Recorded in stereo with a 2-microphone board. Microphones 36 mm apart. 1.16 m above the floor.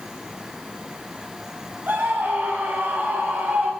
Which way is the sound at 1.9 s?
60° right (ahead or behind).